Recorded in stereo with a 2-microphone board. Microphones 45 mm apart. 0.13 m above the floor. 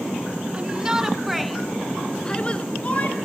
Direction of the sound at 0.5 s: 30° right (ahead or behind).